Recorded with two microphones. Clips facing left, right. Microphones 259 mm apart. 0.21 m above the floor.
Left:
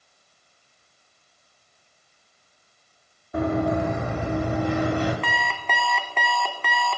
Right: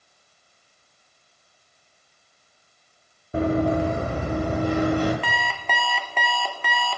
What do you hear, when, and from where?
3.3 s running footsteps: 30° right (ahead or behind), 1.9 m; by 5.1 s 45° right (ahead or behind), 3 m
5.2 s an alarm clock: 5° right (ahead or behind), 1.0 m